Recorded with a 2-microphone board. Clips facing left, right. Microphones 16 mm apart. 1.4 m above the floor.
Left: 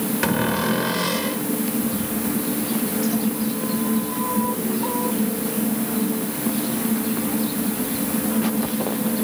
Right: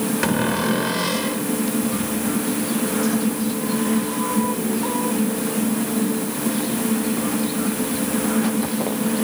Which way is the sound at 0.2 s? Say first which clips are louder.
Even; centre (ahead or behind).